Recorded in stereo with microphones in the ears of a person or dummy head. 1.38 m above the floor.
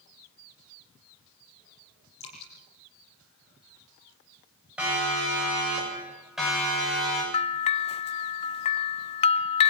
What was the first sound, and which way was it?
Dripping, 35° left (ahead or behind).